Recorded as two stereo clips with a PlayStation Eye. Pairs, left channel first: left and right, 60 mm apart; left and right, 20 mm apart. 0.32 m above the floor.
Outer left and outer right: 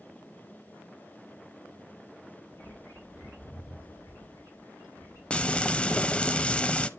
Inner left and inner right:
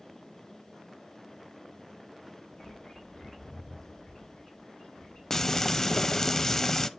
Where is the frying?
20° left (ahead or behind), 0.5 m.